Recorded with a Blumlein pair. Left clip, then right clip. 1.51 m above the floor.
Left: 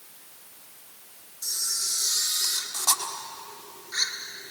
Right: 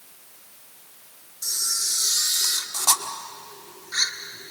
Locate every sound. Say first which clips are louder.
1.4 s a camera shutter: right 3 dB; 15° right, 1.7 m